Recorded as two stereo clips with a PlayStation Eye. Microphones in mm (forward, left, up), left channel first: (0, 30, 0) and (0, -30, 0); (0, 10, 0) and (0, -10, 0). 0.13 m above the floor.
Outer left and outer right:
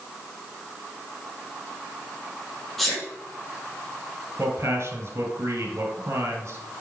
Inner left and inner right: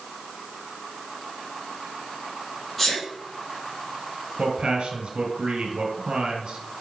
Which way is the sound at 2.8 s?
5° left (ahead or behind).